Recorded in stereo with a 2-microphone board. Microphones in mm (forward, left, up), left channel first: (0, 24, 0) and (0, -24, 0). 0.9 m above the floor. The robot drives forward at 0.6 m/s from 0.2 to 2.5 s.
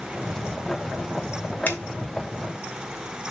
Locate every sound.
1.7 s a finger snap: 35° left (ahead or behind), 2.5 m